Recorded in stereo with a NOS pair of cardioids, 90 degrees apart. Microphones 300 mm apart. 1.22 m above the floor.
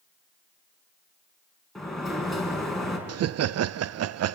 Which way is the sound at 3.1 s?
50° right.